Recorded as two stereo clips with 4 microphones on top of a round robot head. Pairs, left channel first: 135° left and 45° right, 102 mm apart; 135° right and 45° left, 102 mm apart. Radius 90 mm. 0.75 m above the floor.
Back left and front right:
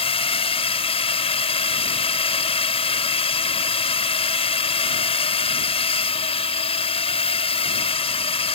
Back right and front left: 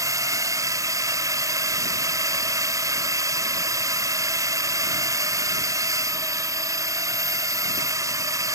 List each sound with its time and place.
0.0 s a drone: 110° left